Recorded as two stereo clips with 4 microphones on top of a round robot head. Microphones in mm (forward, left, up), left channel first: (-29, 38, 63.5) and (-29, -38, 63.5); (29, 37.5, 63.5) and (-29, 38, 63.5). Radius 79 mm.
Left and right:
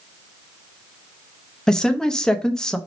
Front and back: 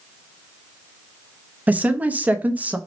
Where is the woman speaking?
160° left, 0.6 m.